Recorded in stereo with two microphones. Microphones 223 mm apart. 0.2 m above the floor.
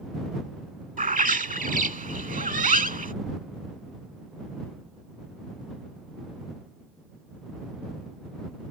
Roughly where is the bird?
Right.